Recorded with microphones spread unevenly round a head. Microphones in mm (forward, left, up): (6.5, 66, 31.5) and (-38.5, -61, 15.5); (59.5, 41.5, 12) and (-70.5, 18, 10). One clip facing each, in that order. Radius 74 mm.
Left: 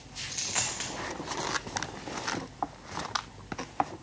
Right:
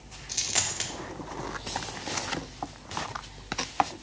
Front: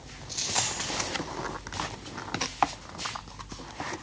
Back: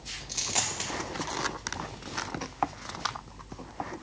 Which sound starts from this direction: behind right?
A dropped coin, at 0.3 s.